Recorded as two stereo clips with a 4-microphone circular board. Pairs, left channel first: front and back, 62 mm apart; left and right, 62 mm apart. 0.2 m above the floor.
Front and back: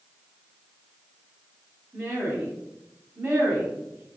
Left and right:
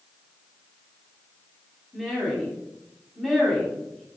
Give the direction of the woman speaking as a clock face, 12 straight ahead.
6 o'clock.